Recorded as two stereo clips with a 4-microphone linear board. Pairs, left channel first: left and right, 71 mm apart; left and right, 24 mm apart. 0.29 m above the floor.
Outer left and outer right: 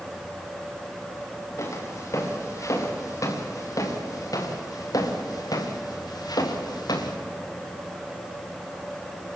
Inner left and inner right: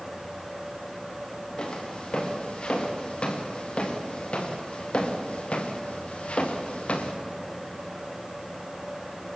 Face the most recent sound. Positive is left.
turn(degrees=65)  # may be behind; listen again after turning